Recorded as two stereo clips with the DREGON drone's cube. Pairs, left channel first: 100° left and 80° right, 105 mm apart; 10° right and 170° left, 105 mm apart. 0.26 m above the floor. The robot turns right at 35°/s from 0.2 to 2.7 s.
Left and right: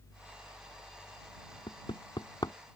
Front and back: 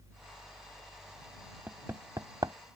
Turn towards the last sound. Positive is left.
turn(degrees=140)